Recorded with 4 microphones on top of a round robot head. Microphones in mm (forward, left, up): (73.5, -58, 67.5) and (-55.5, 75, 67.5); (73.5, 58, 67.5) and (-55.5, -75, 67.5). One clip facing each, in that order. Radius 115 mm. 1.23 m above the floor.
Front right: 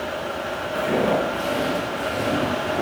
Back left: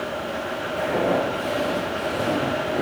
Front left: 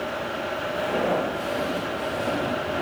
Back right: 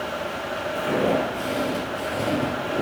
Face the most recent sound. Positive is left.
turn(degrees=-160)